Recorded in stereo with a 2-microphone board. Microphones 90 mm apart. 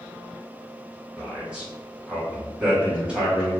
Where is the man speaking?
10° right (ahead or behind), 1.0 m.